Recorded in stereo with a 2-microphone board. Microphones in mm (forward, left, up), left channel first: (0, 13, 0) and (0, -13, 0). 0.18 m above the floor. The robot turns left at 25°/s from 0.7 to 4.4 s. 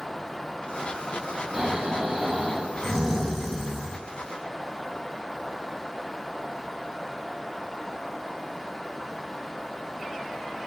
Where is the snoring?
125° right, 0.9 m; by 4.0 s 175° left, 0.9 m.